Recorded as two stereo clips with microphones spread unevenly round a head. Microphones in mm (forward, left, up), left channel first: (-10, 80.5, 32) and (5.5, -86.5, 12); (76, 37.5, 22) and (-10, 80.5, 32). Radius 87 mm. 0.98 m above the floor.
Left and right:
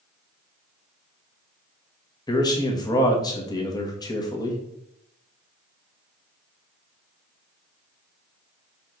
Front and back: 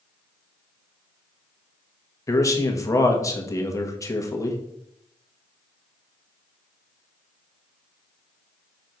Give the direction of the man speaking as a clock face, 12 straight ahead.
11 o'clock.